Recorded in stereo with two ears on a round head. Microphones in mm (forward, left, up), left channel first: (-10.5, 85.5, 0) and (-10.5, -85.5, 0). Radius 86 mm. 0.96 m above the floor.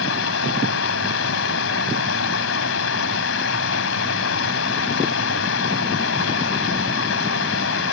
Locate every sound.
0.0 s running water: 75° left (ahead or behind)